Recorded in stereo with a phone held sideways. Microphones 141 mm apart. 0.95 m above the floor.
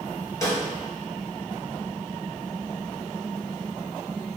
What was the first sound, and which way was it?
A snare drum, 20° left (ahead or behind).